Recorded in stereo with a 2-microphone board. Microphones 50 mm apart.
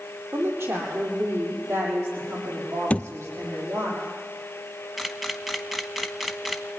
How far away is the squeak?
No squeak in this recording.